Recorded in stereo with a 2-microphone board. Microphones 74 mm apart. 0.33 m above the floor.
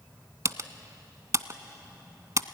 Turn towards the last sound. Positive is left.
turn(degrees=-45)  # may be behind; listen again after turning